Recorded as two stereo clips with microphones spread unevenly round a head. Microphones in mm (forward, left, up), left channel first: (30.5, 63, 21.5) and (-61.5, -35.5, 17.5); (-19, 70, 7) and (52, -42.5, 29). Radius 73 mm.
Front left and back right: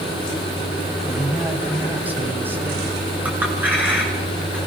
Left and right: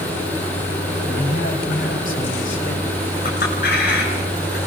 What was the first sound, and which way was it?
A man speaking, 145° left.